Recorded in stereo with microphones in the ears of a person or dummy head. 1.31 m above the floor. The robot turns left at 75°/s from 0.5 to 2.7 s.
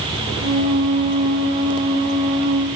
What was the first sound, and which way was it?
Only background noise.